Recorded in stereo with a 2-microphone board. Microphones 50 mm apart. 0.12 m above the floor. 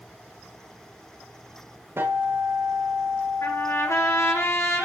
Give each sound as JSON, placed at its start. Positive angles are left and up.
{"t": 2.0, "sound": "a guitar", "side_deg": -55, "distance_m": 8.5}
{"t": 3.4, "sound": "a trumpet", "side_deg": 75, "distance_m": 6.0}